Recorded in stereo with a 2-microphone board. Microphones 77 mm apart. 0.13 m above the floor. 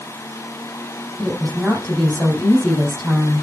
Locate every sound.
1.2 s a woman speaking: 10° left (ahead or behind), 5.5 m